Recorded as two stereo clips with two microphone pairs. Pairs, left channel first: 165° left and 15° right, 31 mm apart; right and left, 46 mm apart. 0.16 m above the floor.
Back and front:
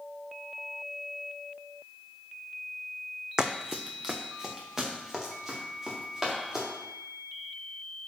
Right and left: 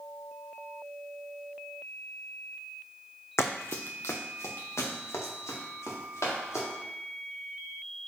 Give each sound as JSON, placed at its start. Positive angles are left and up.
{"t": 3.4, "sound": "running footsteps", "azimuth_deg": -80, "distance_m": 0.6}